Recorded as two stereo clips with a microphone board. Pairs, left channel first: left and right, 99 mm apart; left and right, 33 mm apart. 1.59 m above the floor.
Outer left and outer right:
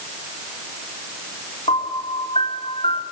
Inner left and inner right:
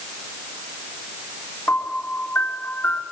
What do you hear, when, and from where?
1.7 s a piano: 85° left, 5 m